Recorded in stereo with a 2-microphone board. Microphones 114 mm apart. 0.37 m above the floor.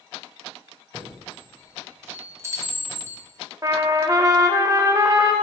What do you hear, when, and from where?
0.9 s a chime: 25° right (ahead or behind), 1.5 m
3.6 s a trumpet: 30° right (ahead or behind), 0.6 m